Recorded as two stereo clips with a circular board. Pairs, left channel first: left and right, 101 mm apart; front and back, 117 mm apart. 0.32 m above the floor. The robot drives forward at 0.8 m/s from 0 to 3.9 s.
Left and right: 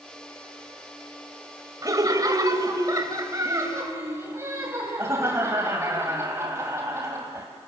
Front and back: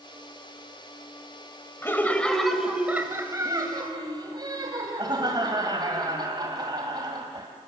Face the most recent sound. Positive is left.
turn(degrees=-140)